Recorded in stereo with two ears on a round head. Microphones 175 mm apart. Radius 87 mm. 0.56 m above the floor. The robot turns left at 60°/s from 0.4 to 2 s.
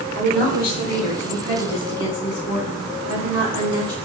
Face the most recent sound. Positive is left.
turn(degrees=60)